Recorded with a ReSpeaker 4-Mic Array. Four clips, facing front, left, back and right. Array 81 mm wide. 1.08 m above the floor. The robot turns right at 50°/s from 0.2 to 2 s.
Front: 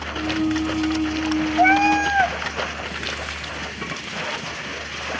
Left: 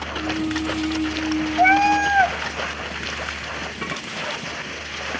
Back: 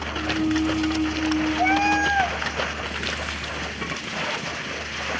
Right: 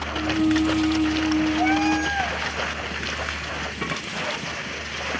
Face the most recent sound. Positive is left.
turn(degrees=50)